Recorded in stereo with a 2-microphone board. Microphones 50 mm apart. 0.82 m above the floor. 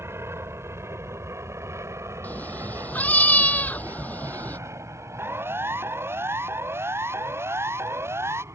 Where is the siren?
55° right (ahead or behind); by 8.4 s 65° right (ahead or behind).